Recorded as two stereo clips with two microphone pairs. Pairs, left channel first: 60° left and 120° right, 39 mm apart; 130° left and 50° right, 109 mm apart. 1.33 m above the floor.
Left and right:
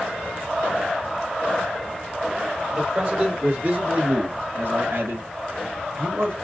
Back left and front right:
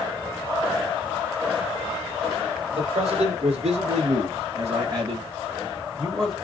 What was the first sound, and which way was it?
A man speaking, 45° right.